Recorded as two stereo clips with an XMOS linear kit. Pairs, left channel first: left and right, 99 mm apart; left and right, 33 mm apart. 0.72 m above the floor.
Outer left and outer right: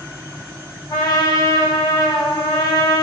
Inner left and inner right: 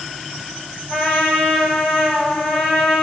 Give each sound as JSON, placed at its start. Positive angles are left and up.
{"t": 0.9, "sound": "a trumpet", "side_deg": 40, "distance_m": 8.5}